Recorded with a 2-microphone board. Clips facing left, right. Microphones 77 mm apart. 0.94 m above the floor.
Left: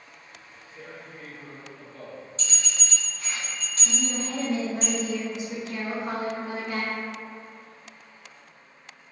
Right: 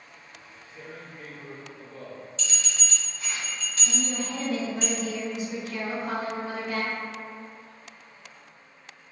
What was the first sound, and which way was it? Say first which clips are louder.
Tearing paper: even; centre (ahead or behind).